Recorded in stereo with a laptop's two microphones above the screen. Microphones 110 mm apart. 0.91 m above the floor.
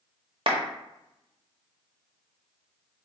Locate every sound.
0.5 s a clap: 55° right (ahead or behind), 0.8 m